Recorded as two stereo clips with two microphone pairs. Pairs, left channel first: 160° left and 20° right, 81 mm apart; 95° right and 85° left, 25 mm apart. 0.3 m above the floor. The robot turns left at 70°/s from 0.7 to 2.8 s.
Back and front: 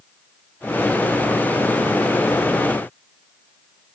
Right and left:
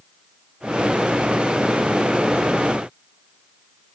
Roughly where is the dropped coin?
No dropped coin in this recording.